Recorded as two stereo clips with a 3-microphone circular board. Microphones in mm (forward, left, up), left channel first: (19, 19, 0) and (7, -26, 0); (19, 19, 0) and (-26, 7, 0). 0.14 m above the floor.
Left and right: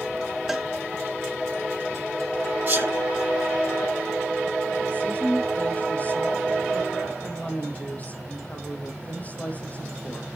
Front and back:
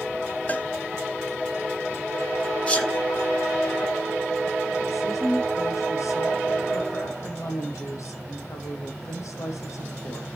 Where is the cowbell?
25° right, 1.2 m.